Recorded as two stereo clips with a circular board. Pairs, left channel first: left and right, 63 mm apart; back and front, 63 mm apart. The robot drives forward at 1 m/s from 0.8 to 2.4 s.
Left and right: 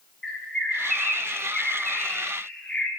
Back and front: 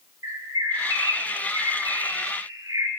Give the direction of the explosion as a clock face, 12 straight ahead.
No explosion in this recording.